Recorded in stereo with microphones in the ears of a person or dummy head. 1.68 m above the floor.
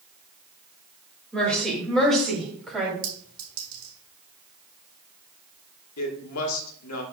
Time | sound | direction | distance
1.3 | a woman speaking | 5° left (ahead or behind) | 3 m
3.0 | a clink | 60° right (ahead or behind) | 4.5 m
6.0 | a woman speaking | 80° left | 1.6 m